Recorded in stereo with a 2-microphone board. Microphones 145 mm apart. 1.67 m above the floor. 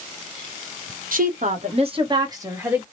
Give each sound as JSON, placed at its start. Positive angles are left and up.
{"t": 1.1, "sound": "a woman speaking", "side_deg": -75, "distance_m": 1.0}